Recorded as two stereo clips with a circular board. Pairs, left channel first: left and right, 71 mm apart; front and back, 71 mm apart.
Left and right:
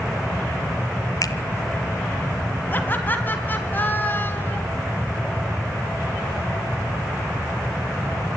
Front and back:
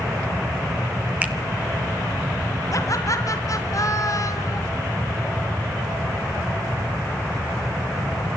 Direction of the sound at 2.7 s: 30° left.